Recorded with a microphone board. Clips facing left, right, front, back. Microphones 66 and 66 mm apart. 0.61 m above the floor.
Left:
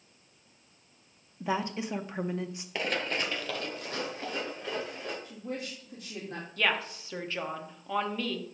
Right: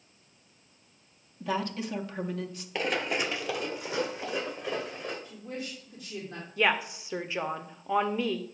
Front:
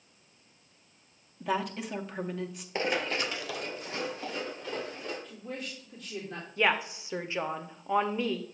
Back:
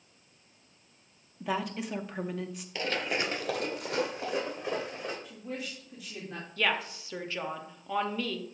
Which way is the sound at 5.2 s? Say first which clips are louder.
Left 1 dB, back 1 dB; 105° left.